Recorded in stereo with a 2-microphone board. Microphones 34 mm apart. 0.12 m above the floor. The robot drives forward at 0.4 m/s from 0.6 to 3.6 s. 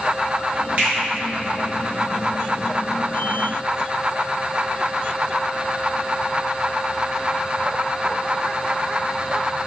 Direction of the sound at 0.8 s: 40° right (ahead or behind).